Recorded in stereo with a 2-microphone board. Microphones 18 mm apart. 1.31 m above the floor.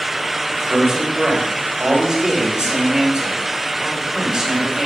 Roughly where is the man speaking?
Right.